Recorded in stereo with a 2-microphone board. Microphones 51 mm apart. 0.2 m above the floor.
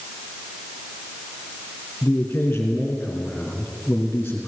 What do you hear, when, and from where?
2.0 s a man speaking: 30° left (ahead or behind), 3 m